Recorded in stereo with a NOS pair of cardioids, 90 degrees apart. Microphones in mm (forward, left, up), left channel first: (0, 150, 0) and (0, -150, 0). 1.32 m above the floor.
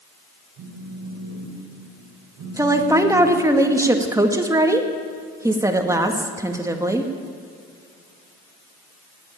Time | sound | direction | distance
0.6 | a phone buzzing | 70° right | 3.5 m
2.6 | a woman speaking | 10° right | 1.9 m